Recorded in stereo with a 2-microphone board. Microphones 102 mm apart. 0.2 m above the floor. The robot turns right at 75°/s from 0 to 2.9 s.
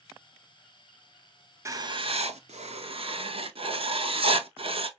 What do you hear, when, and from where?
1.6 s writing: 155° right, 0.5 m; by 4.9 s 60° right, 0.5 m